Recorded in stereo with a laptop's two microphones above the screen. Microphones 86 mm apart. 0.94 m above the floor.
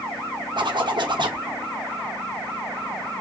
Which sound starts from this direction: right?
A zipper, at 0.6 s.